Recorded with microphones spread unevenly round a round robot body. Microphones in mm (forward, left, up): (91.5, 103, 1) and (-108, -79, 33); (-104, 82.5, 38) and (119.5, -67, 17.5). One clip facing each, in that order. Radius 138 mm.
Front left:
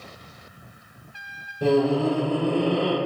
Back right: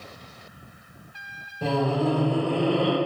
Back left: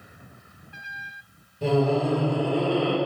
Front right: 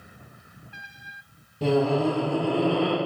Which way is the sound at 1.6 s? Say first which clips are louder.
Front left 5 dB, even; 30° right.